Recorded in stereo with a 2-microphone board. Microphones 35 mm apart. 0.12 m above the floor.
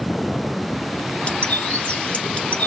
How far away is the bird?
About 1.3 m.